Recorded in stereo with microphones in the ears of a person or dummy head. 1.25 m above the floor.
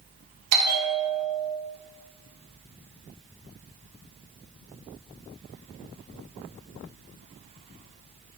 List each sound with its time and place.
0.5 s a bell: 65° right (ahead or behind), 1.1 m